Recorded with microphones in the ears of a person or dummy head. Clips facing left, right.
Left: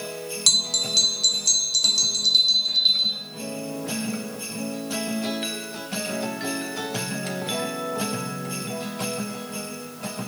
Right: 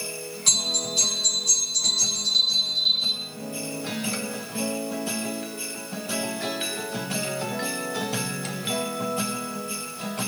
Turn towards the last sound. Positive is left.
turn(degrees=50)  # may be behind; listen again after turning